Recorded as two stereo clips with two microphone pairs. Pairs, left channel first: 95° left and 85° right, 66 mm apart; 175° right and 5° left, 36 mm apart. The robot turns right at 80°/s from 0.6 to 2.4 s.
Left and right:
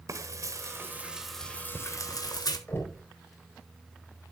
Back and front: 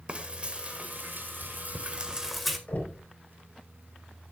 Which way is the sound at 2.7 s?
155° left.